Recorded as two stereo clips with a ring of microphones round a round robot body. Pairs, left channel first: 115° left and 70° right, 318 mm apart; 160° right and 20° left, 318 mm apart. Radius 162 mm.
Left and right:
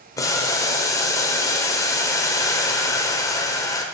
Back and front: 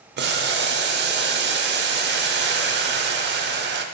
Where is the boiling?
40° left, 0.7 m.